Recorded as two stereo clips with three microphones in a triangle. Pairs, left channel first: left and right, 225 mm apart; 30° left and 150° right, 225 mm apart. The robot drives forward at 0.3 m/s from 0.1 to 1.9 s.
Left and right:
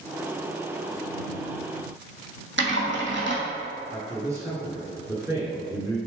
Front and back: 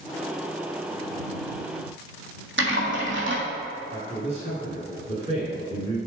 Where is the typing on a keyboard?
120° right, 1.8 m.